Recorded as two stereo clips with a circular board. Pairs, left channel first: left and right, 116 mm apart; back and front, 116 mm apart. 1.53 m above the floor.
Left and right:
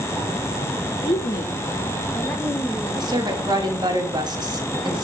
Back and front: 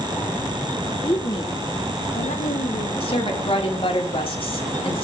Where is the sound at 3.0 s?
145° right, 3 m.